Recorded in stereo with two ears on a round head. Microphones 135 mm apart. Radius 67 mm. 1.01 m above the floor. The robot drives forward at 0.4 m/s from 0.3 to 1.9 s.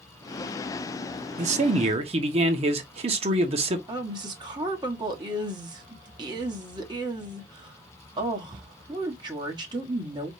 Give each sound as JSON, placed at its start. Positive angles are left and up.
{"t": 1.4, "sound": "a man speaking", "side_deg": -50, "distance_m": 0.9}
{"t": 3.9, "sound": "a woman speaking", "side_deg": -30, "distance_m": 1.4}